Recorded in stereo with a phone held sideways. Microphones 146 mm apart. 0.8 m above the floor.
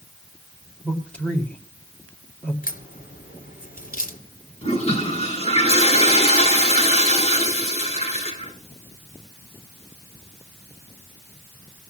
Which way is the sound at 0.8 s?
10° left (ahead or behind).